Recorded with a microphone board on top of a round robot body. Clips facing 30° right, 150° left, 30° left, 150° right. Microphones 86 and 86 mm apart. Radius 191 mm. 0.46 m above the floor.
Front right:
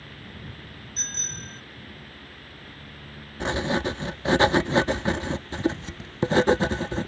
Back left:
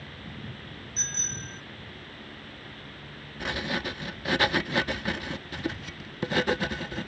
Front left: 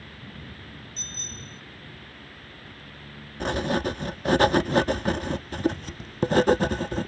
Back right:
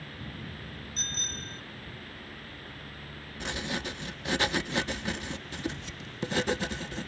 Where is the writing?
25° left.